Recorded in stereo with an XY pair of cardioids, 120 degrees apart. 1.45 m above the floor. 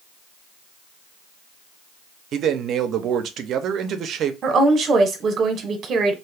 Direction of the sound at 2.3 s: 60° right.